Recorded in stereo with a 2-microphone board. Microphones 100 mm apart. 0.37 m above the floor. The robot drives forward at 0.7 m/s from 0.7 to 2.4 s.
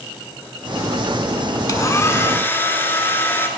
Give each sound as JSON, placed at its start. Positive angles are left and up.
{"t": 1.7, "sound": "a hair dryer", "side_deg": 35, "distance_m": 0.7}